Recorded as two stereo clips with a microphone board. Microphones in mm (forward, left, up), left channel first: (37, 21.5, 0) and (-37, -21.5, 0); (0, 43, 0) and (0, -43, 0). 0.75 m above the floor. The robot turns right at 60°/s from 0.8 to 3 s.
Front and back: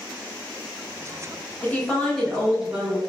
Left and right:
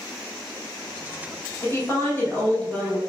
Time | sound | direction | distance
1.6 | a woman speaking | 80° left | 0.8 m